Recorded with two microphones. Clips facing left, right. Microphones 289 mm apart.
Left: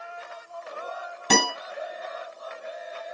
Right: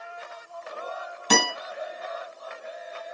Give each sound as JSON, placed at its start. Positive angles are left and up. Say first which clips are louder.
{"t": 1.3, "sound": "a guitar", "louder": "left 1 dB", "side_deg": 65, "distance_m": 2.5}